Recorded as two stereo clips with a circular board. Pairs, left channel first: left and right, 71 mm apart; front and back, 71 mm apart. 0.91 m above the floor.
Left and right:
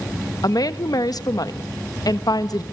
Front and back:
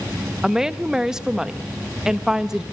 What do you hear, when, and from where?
0.4 s a woman speaking: 100° left, 1.0 m